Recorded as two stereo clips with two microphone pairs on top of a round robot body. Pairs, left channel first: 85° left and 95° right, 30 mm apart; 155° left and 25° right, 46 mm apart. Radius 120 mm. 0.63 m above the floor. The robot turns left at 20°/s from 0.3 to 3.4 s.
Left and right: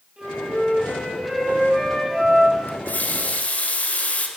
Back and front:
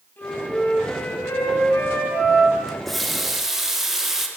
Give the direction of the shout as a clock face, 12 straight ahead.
No shout in this recording.